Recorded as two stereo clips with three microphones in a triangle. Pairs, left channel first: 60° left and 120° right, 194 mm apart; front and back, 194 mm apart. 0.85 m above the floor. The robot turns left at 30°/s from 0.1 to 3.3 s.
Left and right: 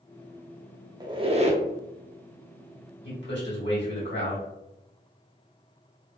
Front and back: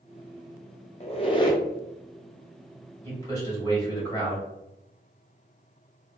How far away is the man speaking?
About 1.7 m.